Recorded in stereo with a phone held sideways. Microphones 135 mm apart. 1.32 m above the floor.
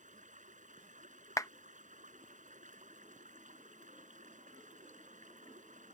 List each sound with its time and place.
0.0 s running water: 70° right (ahead or behind)
1.4 s a clap: 25° left (ahead or behind)